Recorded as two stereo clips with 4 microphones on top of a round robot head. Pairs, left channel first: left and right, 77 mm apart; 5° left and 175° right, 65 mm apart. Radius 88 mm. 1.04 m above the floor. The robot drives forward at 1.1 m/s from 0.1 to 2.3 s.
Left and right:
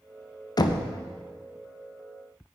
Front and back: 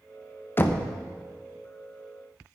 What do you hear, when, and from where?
0.6 s knocking: 60° left, 0.9 m; by 0.8 s 80° left, 0.8 m